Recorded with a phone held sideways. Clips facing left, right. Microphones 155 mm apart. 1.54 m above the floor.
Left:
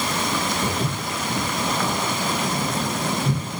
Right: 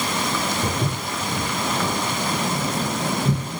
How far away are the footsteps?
About 1.5 m.